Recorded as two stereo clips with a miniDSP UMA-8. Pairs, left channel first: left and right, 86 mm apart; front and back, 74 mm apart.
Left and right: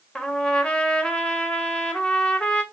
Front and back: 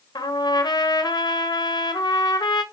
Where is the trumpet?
10° left, 1.5 m.